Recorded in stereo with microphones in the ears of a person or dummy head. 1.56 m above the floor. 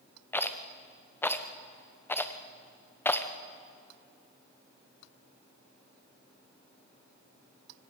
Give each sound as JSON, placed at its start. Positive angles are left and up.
{"t": 0.3, "sound": "a rattle", "side_deg": 15, "distance_m": 0.8}